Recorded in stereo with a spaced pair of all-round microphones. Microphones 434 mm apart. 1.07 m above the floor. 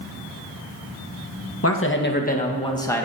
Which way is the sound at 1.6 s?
35° left (ahead or behind).